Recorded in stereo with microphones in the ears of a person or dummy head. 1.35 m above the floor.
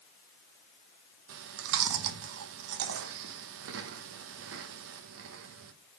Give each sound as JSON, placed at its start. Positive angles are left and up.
{"t": 1.3, "sound": "chewing", "side_deg": -70, "distance_m": 0.8}